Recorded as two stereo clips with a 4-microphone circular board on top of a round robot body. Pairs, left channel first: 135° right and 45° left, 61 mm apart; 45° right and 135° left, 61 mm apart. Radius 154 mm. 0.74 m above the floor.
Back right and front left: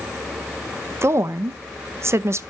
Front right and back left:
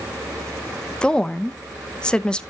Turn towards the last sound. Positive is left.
turn(degrees=25)